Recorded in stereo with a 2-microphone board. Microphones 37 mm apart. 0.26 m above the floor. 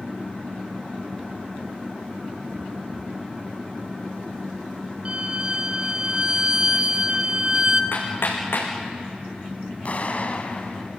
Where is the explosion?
45° left (ahead or behind), 2.5 m.